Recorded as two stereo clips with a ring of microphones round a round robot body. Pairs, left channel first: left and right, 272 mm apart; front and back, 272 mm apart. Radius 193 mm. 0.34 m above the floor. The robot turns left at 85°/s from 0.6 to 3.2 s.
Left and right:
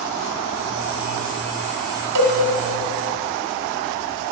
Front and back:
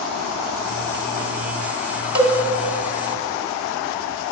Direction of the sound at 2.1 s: 95° right.